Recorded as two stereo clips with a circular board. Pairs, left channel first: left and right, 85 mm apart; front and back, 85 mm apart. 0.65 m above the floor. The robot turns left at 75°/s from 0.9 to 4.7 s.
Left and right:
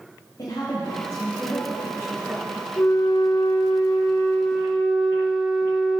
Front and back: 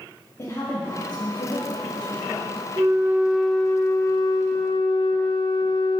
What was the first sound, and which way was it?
A woman speaking, 50° left.